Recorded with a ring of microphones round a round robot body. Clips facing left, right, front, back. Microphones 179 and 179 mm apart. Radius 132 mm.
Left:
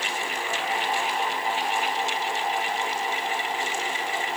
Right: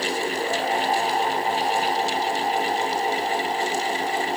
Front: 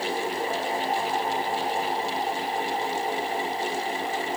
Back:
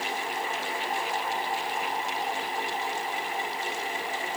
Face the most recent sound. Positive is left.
No sound to turn to.